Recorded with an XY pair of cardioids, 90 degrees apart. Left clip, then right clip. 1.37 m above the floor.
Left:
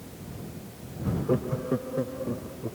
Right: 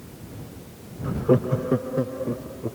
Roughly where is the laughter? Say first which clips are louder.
Right 7 dB; ahead right.